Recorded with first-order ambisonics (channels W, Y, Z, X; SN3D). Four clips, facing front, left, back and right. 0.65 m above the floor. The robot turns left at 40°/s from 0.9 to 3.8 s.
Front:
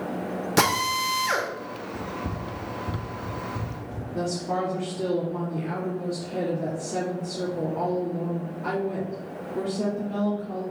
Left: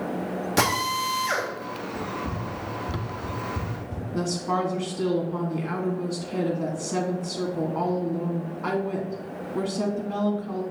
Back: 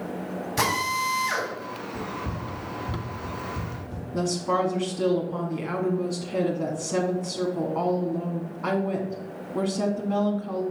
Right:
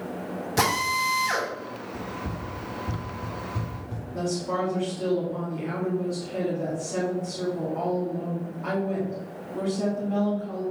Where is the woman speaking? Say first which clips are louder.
Left 1 dB, back 3 dB; 160° left, 1.3 m.